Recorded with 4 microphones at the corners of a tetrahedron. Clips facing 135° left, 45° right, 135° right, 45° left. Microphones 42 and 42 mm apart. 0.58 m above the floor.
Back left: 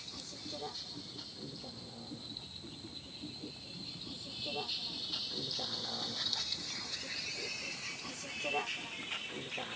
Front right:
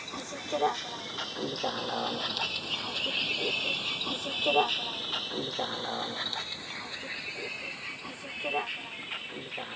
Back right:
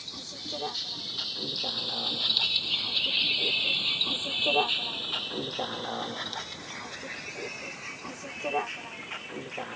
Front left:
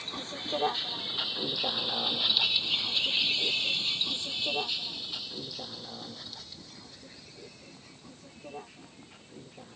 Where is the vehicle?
10° right; by 9.8 s 120° right.